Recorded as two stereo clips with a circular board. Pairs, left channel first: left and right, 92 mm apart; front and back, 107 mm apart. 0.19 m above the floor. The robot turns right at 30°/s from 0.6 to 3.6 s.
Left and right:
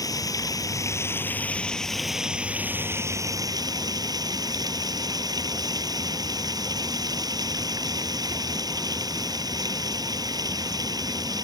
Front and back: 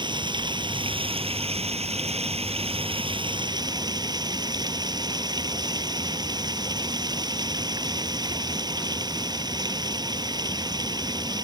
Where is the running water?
140° left; by 11.4 s 130° right.